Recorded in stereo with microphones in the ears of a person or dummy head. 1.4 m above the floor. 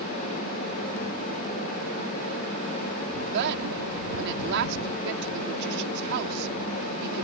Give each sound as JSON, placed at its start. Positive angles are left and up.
{"t": 3.3, "sound": "a woman speaking", "side_deg": -65}